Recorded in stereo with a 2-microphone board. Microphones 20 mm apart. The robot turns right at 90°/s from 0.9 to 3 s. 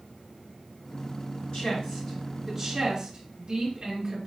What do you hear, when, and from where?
1.5 s a woman speaking: 45° left (ahead or behind), 2.5 m; by 4.3 s 45° right (ahead or behind), 2.5 m